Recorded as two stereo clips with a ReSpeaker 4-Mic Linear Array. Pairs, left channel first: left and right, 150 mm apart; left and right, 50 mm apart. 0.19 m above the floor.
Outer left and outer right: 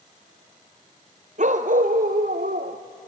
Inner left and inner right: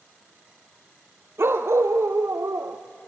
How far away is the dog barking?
About 1.4 m.